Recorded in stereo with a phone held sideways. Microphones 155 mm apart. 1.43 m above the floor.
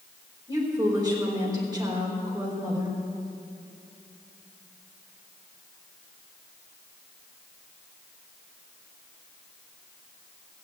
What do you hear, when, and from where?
0.5 s a woman speaking: 25° right (ahead or behind), 4.5 m